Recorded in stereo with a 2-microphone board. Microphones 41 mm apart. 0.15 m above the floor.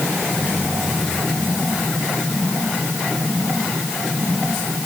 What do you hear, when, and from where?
Only background noise.